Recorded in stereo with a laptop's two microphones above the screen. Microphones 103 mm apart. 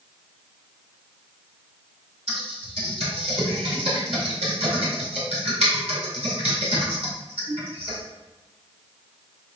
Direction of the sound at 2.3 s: 80° right.